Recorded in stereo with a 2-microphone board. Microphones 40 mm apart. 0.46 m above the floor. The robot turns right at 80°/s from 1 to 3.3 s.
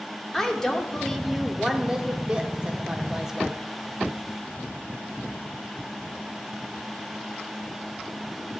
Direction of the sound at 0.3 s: 10° left (ahead or behind).